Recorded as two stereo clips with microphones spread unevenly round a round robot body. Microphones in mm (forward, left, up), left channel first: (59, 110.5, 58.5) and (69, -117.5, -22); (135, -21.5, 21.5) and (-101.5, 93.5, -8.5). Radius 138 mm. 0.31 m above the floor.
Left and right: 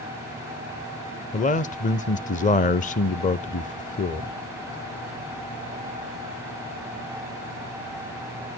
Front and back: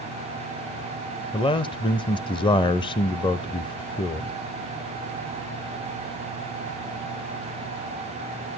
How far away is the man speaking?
About 0.9 m.